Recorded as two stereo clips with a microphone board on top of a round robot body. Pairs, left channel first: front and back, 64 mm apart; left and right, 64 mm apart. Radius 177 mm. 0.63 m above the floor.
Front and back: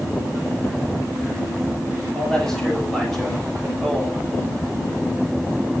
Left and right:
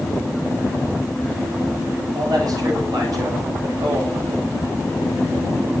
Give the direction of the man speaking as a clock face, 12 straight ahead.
3 o'clock.